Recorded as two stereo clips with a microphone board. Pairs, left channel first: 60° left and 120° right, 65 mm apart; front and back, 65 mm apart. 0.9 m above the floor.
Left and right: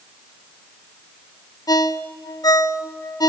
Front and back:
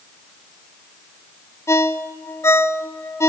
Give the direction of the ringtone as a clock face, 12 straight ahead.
11 o'clock.